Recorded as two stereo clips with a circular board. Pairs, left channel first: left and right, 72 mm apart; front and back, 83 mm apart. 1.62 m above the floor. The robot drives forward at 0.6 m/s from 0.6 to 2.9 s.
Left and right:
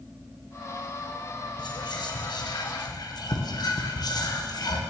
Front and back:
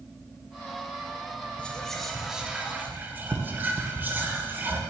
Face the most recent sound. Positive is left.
turn(degrees=115)